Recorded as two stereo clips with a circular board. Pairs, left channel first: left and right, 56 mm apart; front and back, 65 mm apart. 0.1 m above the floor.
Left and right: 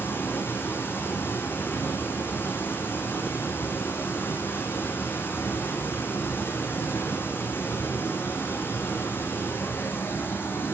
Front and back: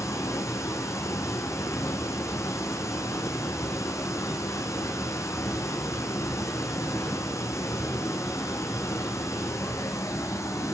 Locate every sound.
0.0 s running water: 40° left, 6 m